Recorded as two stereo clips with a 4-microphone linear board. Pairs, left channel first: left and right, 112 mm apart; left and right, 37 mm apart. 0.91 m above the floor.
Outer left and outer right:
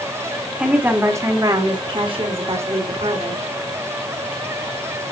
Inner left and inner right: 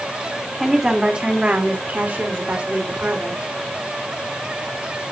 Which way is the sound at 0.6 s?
10° right (ahead or behind).